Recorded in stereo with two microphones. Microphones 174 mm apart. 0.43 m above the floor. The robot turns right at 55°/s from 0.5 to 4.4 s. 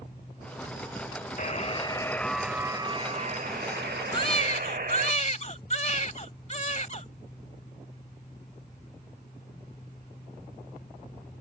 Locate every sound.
1.4 s a buzzer: 125° left; by 5.1 s 65° right
4.1 s a baby crying: 30° left (ahead or behind); by 7.1 s 45° left (ahead or behind)